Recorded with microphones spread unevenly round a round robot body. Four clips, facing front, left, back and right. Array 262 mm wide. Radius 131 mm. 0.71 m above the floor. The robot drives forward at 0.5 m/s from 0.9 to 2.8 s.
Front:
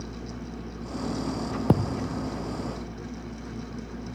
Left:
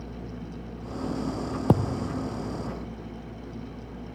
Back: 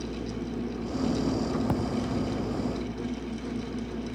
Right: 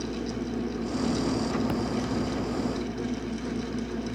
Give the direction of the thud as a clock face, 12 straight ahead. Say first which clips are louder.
Left 3 dB, front 3 dB; 11 o'clock.